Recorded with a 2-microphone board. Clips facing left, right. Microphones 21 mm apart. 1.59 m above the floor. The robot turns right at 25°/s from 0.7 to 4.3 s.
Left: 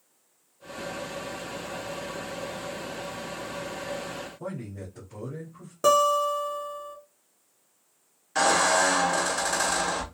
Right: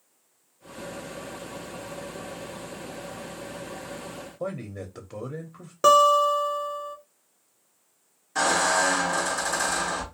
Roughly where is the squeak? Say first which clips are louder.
Left 1 dB; left.